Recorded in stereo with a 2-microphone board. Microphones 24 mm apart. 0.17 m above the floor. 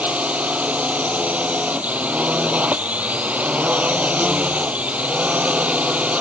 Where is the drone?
75° right (ahead or behind).